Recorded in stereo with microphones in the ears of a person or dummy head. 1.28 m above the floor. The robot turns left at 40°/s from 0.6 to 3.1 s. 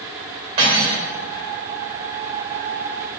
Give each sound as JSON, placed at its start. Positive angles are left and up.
{"t": 0.6, "sound": "cutlery clinking", "side_deg": -30, "distance_m": 1.5}